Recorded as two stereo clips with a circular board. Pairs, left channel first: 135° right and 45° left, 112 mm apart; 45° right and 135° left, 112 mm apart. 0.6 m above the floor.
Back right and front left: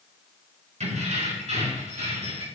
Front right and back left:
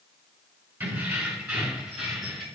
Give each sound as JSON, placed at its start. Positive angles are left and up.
{"t": 0.8, "sound": "keys jangling", "azimuth_deg": 60, "distance_m": 4.5}